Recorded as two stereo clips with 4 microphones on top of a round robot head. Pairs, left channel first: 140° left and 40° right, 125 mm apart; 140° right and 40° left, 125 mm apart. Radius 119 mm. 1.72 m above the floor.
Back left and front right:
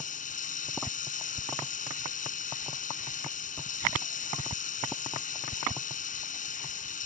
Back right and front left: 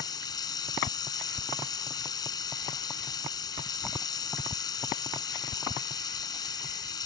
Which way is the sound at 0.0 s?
160° left.